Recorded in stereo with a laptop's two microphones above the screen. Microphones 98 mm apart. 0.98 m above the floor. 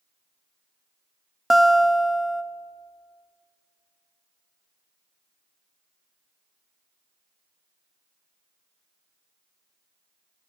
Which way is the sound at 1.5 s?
Centre (ahead or behind).